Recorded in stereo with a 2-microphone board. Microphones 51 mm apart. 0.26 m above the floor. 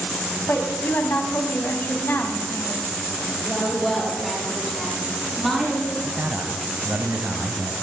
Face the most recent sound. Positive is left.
turn(degrees=-45)  # may be behind; listen again after turning